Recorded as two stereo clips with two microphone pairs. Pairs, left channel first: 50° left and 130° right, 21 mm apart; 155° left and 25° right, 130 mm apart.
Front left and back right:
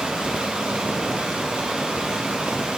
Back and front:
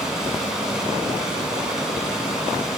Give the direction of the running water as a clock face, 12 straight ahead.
4 o'clock.